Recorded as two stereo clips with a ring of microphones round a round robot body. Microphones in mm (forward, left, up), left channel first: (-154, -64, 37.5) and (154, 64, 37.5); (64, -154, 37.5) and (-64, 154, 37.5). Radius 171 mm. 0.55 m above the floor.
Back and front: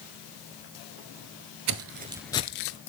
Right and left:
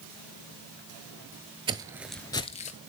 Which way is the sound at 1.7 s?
40° left.